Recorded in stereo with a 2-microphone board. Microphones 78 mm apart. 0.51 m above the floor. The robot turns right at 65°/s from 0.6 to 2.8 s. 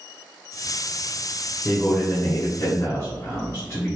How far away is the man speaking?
About 0.8 m.